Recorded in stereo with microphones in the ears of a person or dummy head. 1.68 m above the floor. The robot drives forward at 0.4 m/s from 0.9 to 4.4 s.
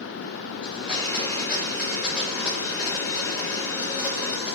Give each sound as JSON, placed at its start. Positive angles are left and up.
{"t": 0.6, "sound": "a blender", "side_deg": -5, "distance_m": 5.0}